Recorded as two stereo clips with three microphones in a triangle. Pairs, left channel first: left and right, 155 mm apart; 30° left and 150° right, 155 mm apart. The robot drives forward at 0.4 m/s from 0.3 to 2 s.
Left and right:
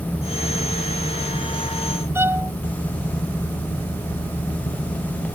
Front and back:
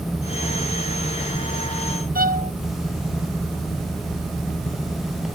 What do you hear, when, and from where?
2.1 s a violin: 165° right